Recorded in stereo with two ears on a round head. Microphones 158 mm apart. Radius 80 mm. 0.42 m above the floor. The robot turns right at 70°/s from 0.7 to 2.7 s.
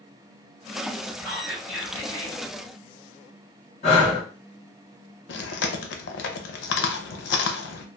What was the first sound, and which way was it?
Whispering, 35° right.